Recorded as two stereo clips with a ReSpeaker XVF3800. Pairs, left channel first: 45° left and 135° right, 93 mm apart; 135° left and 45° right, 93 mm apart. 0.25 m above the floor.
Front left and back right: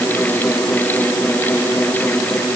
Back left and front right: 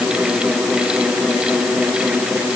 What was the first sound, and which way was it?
Only background noise.